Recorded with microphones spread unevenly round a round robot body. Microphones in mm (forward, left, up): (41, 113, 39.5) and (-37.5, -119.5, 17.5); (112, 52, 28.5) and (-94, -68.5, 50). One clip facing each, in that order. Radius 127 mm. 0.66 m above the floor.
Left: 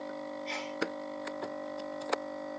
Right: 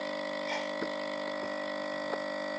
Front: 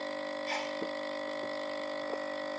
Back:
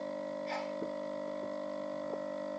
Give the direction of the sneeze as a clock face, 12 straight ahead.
12 o'clock.